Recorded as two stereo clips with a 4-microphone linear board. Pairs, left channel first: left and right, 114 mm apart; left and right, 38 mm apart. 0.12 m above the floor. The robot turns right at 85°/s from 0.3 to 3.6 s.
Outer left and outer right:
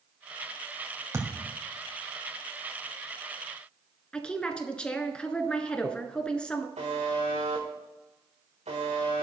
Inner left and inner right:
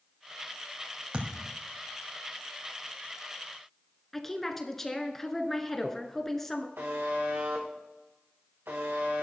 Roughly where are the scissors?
I don't hear scissors.